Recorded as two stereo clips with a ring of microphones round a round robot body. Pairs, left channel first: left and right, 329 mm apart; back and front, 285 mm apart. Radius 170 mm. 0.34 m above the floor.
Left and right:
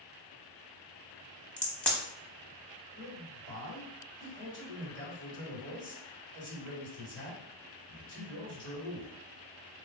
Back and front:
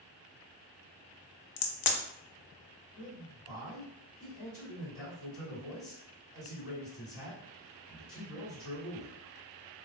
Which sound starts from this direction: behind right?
A man speaking, at 3.0 s.